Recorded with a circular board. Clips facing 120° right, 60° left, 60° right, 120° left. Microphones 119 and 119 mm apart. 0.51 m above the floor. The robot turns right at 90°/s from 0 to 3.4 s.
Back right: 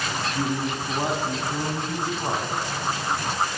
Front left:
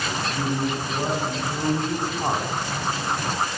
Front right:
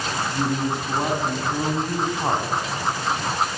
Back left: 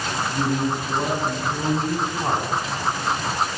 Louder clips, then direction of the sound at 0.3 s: Front left 1 dB, back left 1 dB; 175° right.